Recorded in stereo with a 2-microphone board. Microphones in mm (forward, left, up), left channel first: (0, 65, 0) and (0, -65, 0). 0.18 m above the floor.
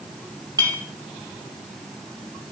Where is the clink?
30° right (ahead or behind), 3.5 m.